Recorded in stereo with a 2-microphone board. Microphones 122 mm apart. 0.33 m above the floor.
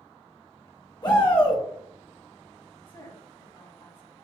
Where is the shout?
40° left (ahead or behind), 1.3 m.